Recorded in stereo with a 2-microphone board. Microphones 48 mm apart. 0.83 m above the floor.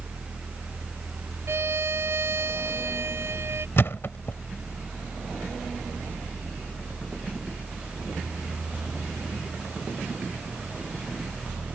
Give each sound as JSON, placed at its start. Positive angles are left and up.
{"t": 1.5, "sound": "a violin", "side_deg": -60}
{"t": 3.8, "sound": "a thud", "side_deg": 55}